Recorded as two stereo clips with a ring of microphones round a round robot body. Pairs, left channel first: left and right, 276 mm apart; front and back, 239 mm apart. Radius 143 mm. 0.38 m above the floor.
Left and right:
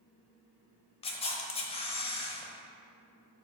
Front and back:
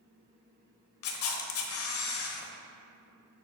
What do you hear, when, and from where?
1.0 s a camera shutter: 20° left, 0.8 m